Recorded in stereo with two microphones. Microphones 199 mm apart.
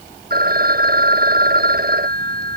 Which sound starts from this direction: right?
A phone ringing, at 0.3 s.